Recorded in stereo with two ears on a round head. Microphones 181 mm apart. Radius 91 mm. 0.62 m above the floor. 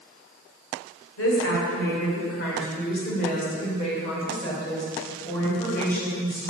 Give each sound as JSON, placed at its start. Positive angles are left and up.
{"t": 1.2, "sound": "a woman speaking", "side_deg": 70, "distance_m": 2.5}